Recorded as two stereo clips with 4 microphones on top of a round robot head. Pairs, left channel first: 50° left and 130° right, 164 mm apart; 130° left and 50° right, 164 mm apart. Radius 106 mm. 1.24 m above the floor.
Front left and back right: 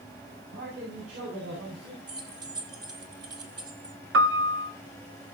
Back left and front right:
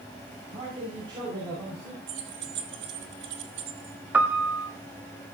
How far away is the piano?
About 1.5 m.